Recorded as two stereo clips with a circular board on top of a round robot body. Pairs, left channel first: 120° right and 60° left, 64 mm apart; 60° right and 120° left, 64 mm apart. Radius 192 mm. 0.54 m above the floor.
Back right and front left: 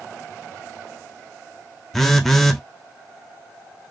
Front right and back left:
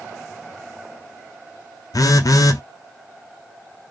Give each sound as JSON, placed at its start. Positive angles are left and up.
{"t": 1.9, "sound": "a phone buzzing", "azimuth_deg": -35, "distance_m": 0.6}